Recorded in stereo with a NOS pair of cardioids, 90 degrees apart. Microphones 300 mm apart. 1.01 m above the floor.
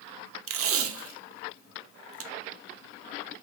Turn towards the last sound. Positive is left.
turn(degrees=-50)